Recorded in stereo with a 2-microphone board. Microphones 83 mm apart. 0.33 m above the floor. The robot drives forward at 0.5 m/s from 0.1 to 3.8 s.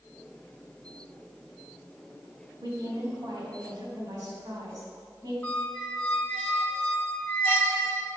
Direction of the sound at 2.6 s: 55° right (ahead or behind).